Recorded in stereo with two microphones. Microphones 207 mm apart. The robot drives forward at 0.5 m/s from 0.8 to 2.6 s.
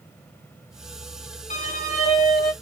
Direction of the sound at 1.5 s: 40° left (ahead or behind).